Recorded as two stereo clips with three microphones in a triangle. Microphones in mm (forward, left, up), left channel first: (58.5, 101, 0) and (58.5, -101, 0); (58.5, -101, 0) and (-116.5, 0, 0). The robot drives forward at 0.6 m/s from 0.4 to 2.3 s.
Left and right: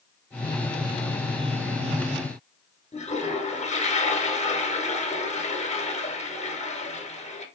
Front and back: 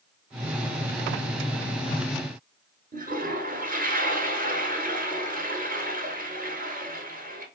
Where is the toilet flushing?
130° left, 0.7 m.